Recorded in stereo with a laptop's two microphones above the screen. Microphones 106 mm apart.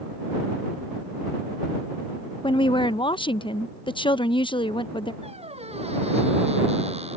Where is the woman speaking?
50° left (ahead or behind).